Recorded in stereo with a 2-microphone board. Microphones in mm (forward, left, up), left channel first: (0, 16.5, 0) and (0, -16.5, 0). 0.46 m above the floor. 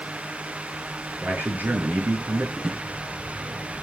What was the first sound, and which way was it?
A man speaking, 85° right.